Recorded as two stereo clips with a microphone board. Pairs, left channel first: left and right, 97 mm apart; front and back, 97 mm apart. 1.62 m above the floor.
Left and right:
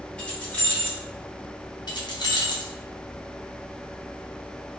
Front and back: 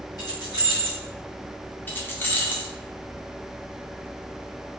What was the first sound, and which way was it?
Keys jangling, 20° left.